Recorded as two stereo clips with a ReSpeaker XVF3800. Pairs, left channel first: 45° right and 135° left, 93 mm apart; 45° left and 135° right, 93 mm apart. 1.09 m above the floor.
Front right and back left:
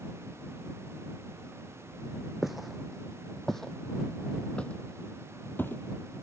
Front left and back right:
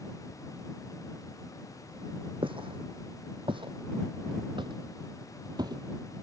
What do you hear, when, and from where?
2.4 s footsteps: 135° right; by 5.8 s 105° right